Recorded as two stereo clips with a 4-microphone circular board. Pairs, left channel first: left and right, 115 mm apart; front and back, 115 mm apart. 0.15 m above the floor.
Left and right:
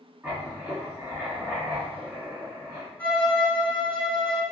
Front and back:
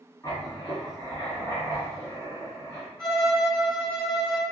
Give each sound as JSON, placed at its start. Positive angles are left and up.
{"t": 0.2, "sound": "writing", "azimuth_deg": -25, "distance_m": 1.6}
{"t": 3.0, "sound": "a violin", "azimuth_deg": 80, "distance_m": 1.6}